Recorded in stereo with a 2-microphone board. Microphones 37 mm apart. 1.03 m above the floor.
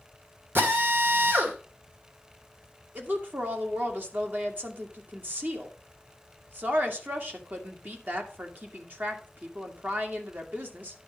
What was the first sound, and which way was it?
A drill, 75° right (ahead or behind).